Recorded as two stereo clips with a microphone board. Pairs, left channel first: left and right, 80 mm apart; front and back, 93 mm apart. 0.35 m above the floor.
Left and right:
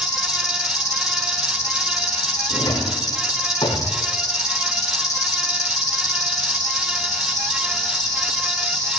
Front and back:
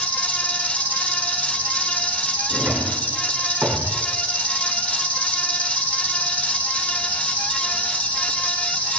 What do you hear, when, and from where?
0.0 s an insect: 70° left, 3 m
2.5 s a drawer: 110° left, 8.5 m